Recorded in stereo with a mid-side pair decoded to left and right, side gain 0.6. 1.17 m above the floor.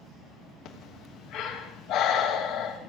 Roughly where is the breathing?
Left.